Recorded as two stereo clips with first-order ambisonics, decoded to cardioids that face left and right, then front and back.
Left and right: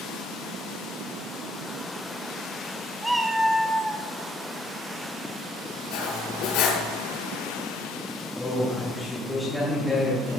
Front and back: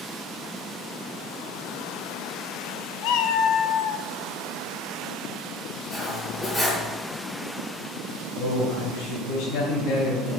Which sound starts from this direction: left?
Cutlery clinking, at 5.9 s.